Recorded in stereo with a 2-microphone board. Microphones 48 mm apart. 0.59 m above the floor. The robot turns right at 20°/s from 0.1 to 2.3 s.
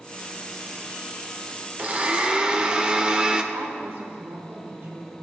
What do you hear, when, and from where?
1.8 s a blender: 35° right (ahead or behind), 0.7 m; by 3.4 s 25° right (ahead or behind), 0.7 m
3.5 s a woman speaking: 75° right (ahead or behind), 4 m